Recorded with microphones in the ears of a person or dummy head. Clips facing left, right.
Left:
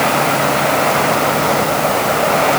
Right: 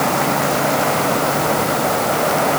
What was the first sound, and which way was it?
Only background noise.